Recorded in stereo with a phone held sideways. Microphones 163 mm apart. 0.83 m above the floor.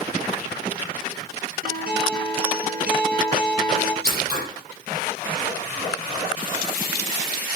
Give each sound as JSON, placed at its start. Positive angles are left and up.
{"t": 1.6, "sound": "a guitar", "side_deg": -70, "distance_m": 3.5}
{"t": 4.0, "sound": "scissors", "side_deg": -75, "distance_m": 8.5}